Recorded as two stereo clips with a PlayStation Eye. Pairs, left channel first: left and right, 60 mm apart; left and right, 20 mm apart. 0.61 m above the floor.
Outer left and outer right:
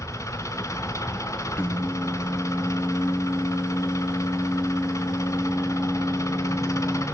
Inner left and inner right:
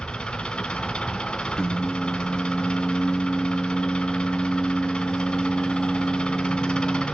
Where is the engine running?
65° left (ahead or behind), 1.5 m.